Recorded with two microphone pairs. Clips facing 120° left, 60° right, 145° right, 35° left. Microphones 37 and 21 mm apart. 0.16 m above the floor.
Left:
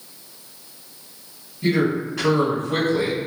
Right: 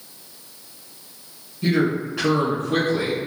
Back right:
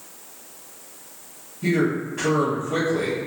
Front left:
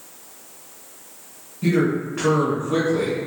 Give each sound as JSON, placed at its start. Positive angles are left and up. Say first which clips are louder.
{"t": 1.6, "sound": "a man speaking", "louder": "even, front left 2 dB", "azimuth_deg": 20, "distance_m": 1.5}